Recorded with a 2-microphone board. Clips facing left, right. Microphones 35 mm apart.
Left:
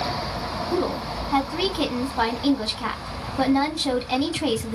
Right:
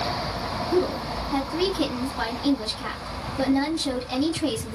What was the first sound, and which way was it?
A woman speaking, 35° left (ahead or behind).